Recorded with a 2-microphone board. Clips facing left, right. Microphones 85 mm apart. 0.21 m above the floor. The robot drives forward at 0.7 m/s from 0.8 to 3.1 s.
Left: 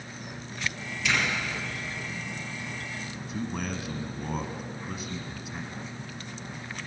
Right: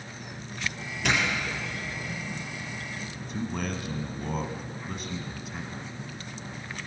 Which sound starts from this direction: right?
A doorbell, at 1.0 s.